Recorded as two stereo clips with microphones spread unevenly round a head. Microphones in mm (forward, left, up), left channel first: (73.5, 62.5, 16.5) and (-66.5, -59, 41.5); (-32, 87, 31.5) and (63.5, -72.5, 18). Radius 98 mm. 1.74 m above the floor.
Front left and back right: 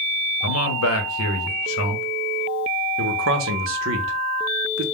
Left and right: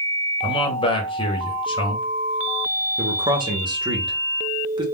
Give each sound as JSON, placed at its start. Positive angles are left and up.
{"t": 0.4, "sound": "a man speaking", "azimuth_deg": 55, "distance_m": 0.8}
{"t": 3.0, "sound": "a man speaking", "azimuth_deg": -130, "distance_m": 0.7}